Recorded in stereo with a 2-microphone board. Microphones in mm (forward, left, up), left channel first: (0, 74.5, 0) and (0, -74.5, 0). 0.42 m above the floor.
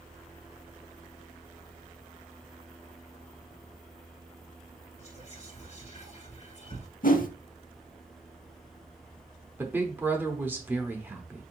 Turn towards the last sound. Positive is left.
turn(degrees=-15)  # may be behind; listen again after turning